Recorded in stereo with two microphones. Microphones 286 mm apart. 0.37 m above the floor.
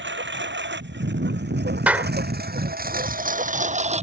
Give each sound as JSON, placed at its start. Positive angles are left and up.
{"t": 0.0, "sound": "a lawn mower", "side_deg": -40}
{"t": 1.9, "sound": "a clap", "side_deg": -5}